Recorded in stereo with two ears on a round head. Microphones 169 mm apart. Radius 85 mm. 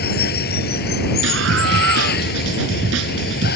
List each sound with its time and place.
0.0 s running water: 55° left (ahead or behind)
1.2 s a scream: 70° right (ahead or behind)